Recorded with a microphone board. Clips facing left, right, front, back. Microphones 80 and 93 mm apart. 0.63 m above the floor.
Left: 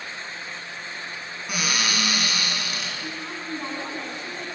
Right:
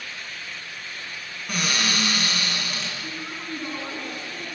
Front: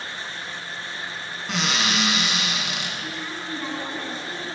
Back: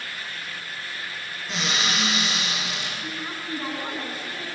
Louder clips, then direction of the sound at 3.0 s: Left 1 dB, front 1 dB; 95° left.